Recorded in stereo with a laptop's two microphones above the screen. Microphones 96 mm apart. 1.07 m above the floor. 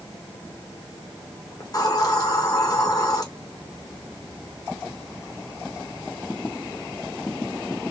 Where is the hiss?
40° left (ahead or behind), 1.1 m.